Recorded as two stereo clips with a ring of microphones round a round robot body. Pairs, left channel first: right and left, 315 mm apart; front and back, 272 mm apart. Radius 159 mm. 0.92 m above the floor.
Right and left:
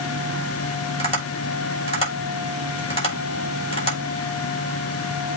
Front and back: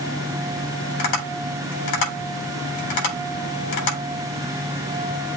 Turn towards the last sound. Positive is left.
turn(degrees=-20)